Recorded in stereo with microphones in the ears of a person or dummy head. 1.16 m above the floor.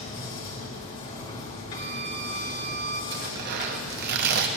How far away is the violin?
About 0.7 m.